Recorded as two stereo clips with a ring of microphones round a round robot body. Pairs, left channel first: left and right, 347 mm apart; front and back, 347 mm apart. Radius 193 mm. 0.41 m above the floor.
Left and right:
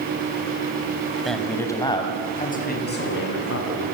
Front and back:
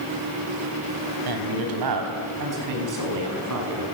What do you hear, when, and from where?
1.2 s a man speaking: straight behind, 3.5 m; by 3.8 s 140° left, 5 m